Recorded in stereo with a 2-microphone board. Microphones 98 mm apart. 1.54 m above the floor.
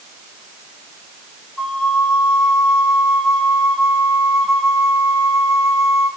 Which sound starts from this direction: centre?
A flute, at 1.6 s.